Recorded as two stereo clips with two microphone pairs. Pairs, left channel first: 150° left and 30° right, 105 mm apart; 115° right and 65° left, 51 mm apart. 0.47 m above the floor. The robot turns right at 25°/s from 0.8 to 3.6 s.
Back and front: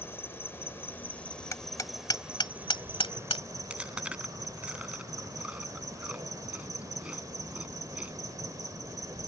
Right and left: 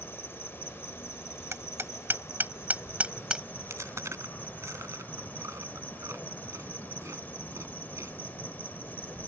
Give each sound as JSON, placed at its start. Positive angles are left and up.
{"t": 0.0, "sound": "an insect", "azimuth_deg": -145}
{"t": 1.5, "sound": "hammering", "azimuth_deg": 90}
{"t": 3.7, "sound": "chewing", "azimuth_deg": 50}